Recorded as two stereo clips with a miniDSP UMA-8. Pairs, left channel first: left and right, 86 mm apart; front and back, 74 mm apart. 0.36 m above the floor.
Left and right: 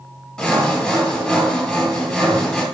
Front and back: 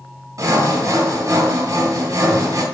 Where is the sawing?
175° left, 1.9 m.